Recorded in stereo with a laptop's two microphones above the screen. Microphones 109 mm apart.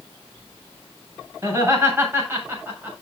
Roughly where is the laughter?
Right.